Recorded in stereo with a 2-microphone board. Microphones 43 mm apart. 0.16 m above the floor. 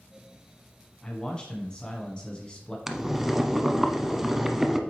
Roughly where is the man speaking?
Left.